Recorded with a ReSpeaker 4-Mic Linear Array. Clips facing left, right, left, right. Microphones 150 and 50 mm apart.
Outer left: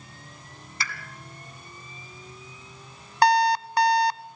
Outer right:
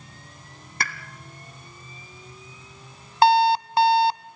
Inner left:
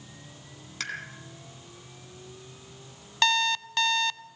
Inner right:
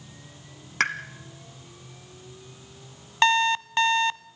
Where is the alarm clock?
25° right (ahead or behind), 0.5 m.